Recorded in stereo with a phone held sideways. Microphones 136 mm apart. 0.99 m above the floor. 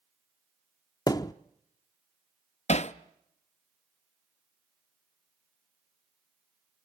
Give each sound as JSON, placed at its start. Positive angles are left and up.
{"t": 1.1, "sound": "a thud", "side_deg": 30, "distance_m": 0.5}
{"t": 2.7, "sound": "hammering", "side_deg": 55, "distance_m": 0.6}